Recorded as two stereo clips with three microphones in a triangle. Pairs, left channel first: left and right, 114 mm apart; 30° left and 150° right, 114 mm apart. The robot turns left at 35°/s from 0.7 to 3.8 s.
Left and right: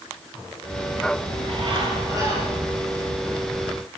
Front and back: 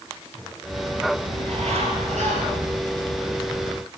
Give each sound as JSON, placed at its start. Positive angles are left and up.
{"t": 1.3, "sound": "a bird", "azimuth_deg": -115, "distance_m": 7.5}